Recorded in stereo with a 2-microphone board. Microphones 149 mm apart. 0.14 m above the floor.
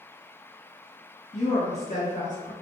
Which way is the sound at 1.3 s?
45° left (ahead or behind).